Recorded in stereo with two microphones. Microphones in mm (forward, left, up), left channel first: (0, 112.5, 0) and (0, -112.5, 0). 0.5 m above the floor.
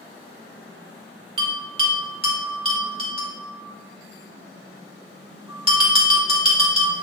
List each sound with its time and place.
1.4 s a bell: 25° right (ahead or behind), 2.0 m